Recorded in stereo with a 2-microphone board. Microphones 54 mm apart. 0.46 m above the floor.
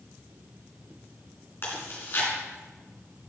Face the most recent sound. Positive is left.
turn(degrees=45)  # may be behind; listen again after turning